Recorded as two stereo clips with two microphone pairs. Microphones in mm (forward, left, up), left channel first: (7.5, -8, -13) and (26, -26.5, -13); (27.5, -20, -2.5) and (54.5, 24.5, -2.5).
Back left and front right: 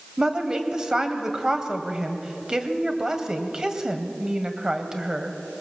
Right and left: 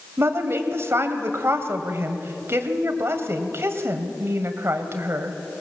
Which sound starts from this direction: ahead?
A woman speaking, at 0.2 s.